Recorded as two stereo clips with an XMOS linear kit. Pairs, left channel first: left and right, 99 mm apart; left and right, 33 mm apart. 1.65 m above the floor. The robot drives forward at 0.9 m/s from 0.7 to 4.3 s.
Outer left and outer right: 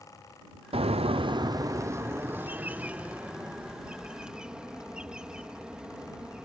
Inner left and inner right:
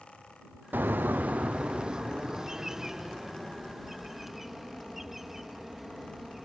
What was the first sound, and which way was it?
A bird, 70° right (ahead or behind).